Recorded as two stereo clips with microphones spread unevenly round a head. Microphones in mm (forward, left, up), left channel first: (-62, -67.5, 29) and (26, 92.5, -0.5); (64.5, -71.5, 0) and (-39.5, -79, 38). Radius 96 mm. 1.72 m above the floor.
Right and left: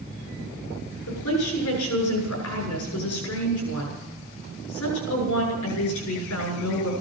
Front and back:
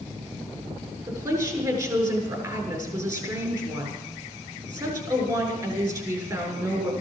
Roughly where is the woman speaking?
Behind right.